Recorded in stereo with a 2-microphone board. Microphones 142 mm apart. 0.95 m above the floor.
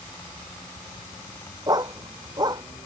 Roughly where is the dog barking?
Right.